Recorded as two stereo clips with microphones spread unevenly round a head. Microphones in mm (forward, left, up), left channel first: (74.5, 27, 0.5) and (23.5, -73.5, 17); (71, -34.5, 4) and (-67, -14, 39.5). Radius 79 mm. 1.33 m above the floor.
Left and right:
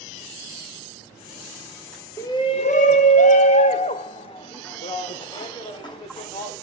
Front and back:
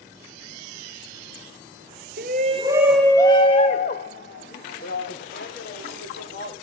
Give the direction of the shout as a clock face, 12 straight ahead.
7 o'clock.